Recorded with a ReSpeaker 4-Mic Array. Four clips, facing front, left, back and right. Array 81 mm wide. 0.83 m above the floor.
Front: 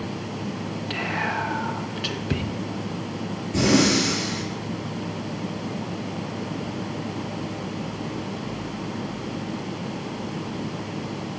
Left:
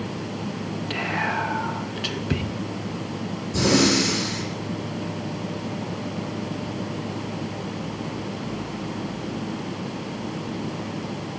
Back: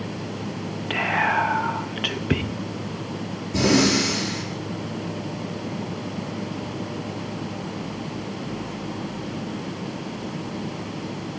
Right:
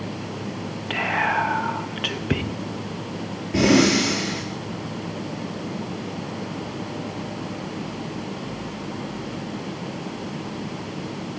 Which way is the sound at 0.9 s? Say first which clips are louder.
Right 4 dB, back 6 dB; 150° right.